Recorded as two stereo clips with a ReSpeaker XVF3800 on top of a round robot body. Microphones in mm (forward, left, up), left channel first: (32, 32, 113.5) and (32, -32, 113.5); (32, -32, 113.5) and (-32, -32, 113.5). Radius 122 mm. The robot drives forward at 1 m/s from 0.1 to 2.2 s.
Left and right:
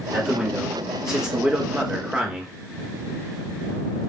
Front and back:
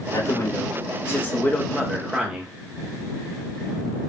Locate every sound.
0.1 s a man speaking: 10° right, 2 m; by 2.5 s 145° right, 1.2 m